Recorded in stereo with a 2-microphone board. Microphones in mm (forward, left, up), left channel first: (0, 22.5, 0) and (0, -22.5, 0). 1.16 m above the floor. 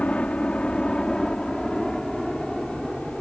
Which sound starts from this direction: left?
A helicopter, at 0.0 s.